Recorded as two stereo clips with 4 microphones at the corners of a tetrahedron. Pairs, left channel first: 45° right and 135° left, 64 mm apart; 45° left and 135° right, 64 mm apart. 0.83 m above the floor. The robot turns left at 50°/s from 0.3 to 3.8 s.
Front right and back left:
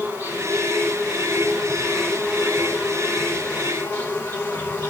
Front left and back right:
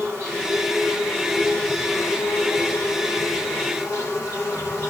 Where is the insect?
175° right, 3.5 m; by 4.9 s 10° left, 3.5 m.